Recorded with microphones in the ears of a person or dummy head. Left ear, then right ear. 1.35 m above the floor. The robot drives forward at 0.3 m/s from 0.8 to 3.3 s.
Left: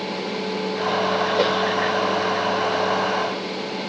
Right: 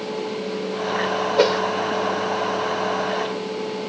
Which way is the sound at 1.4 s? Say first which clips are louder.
Right 5 dB; 5° right (ahead or behind).